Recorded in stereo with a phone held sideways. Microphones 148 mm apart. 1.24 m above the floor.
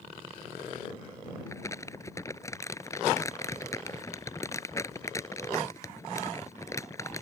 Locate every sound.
1.5 s crumpling: 20° left (ahead or behind)